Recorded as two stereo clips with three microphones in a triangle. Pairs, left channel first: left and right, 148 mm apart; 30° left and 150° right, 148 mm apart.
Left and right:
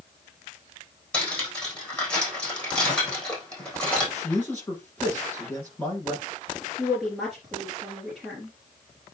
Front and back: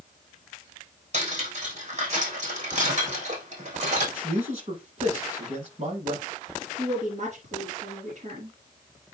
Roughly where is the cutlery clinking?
Behind.